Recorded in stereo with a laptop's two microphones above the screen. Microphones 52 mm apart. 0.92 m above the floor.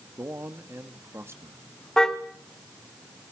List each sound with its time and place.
0.2 s a man speaking: 50° right (ahead or behind), 1.7 m
2.0 s a car horn: 10° left (ahead or behind), 2.5 m